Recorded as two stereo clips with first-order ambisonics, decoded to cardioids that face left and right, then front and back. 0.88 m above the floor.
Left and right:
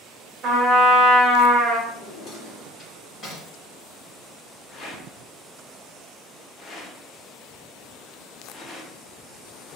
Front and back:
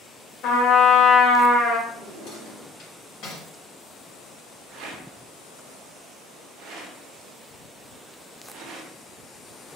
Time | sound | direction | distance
0.4 | a trumpet | 40° right | 0.8 m
1.9 | a drawer | 25° left | 1.5 m
4.7 | a rattle | 150° left | 0.6 m